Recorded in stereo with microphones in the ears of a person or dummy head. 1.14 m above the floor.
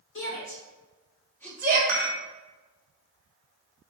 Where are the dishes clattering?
50° right (ahead or behind), 0.7 m.